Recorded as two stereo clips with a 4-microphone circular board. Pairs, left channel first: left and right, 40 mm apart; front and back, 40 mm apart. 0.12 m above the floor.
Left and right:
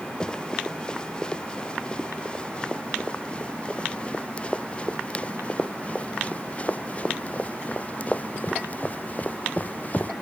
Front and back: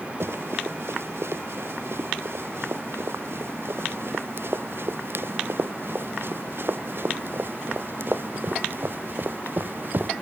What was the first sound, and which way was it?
Running footsteps, 160° left.